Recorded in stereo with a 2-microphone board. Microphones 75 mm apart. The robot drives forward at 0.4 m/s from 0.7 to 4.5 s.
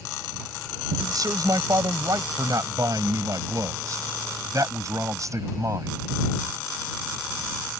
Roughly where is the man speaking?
Right.